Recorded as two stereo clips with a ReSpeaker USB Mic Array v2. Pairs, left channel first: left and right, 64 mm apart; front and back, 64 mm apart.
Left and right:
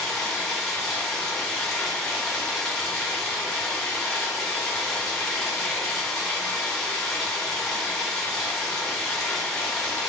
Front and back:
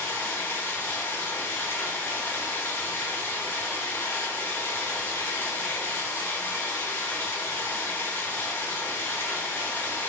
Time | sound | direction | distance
0.0 | running water | 10° left | 1.1 m